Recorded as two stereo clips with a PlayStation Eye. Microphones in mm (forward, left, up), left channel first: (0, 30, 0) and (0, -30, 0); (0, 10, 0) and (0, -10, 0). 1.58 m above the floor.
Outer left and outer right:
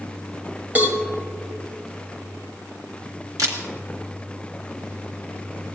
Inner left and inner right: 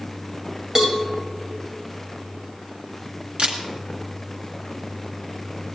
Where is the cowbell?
30° right (ahead or behind), 1.9 m.